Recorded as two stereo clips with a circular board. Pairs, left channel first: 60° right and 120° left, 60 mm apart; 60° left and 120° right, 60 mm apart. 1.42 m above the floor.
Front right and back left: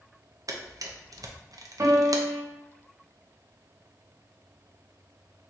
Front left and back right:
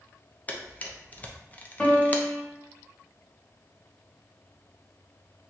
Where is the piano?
130° left, 1.6 m.